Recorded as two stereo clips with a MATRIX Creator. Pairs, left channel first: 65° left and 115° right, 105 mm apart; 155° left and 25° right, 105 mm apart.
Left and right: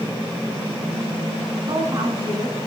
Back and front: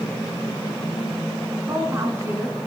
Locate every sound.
1.7 s a woman speaking: 80° right, 1.6 m